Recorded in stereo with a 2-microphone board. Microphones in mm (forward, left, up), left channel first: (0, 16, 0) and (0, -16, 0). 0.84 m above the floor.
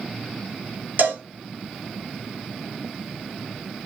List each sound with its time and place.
1.0 s a cowbell: 60° right (ahead or behind), 1.3 m